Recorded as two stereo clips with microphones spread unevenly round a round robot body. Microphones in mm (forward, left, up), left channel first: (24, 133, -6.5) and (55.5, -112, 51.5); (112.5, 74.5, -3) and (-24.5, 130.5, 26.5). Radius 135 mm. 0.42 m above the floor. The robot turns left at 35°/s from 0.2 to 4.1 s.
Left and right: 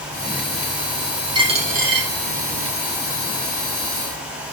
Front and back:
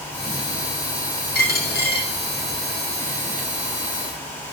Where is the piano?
I don't hear a piano.